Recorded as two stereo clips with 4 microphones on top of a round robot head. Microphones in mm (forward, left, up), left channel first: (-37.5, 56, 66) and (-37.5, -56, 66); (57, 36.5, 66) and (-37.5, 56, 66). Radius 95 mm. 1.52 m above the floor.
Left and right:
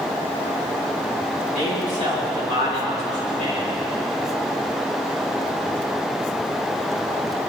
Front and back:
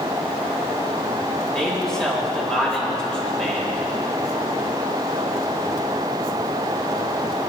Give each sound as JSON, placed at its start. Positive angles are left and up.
{"t": 1.5, "sound": "a man speaking", "azimuth_deg": 70, "distance_m": 8.5}